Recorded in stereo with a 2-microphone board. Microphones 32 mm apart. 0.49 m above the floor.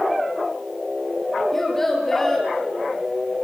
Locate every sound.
1.5 s a child speaking: 10° left (ahead or behind), 8.5 m